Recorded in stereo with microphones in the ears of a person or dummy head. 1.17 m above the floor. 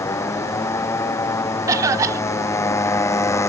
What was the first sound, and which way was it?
A motorcycle, 15° left (ahead or behind).